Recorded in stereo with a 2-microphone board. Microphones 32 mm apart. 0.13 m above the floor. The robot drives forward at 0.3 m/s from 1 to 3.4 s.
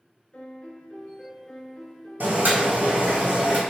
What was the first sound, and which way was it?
A piano, 35° left (ahead or behind).